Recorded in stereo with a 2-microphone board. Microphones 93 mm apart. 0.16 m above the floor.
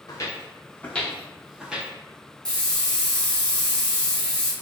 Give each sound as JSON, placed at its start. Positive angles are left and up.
{"t": 0.1, "sound": "footsteps", "side_deg": 40, "distance_m": 1.0}
{"t": 2.5, "sound": "a hiss", "side_deg": 5, "distance_m": 1.9}